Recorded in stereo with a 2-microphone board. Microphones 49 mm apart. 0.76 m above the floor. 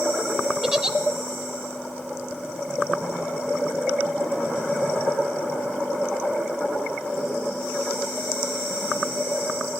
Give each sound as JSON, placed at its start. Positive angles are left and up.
{"t": 0.6, "sound": "a giggle", "side_deg": -15, "distance_m": 1.1}